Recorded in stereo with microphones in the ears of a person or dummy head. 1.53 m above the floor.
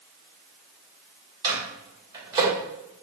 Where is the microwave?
20° right (ahead or behind), 1.4 m.